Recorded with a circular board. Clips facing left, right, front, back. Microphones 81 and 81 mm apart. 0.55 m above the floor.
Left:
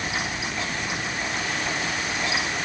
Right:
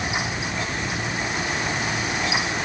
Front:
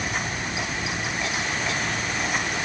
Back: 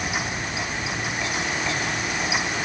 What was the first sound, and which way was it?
Only background noise.